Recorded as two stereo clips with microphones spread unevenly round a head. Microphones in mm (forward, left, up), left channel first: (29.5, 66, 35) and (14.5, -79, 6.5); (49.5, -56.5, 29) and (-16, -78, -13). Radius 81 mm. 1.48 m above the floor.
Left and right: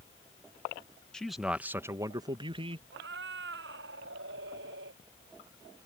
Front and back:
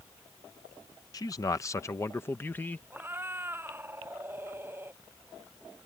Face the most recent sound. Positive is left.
turn(degrees=-100)